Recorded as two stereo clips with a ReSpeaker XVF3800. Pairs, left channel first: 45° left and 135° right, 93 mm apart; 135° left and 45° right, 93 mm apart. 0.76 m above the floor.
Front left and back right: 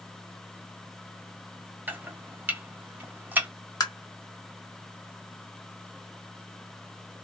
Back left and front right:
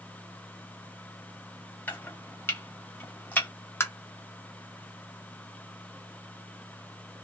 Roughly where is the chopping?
Behind.